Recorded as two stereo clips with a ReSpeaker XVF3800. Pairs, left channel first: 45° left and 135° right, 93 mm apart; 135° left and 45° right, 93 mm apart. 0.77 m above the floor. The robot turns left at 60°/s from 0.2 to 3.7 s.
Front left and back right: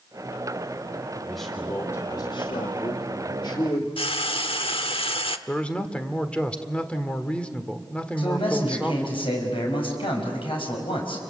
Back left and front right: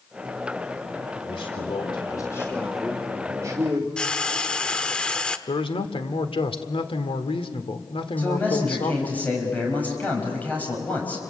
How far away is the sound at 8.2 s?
About 5.5 m.